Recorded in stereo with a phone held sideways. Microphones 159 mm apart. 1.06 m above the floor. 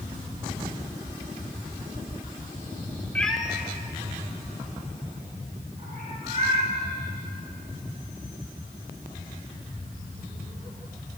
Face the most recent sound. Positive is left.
turn(degrees=-40)  # may be behind; listen again after turning